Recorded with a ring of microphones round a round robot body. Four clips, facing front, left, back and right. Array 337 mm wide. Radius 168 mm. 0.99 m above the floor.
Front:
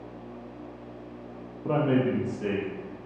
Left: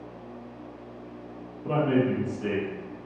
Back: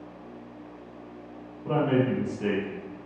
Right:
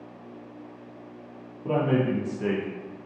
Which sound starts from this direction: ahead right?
A man speaking, at 1.6 s.